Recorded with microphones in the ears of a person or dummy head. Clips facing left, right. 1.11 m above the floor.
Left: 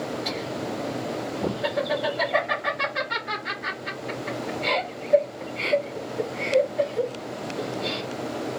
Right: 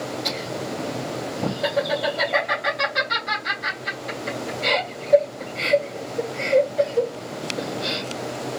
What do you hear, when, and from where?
0.2 s laughter: 50° right (ahead or behind), 2.5 m